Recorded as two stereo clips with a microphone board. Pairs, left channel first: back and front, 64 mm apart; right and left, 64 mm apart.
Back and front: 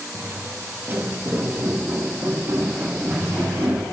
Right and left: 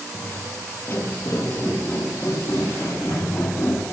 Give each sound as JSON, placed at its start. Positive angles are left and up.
{"t": 0.1, "sound": "footsteps", "azimuth_deg": -35, "distance_m": 1.9}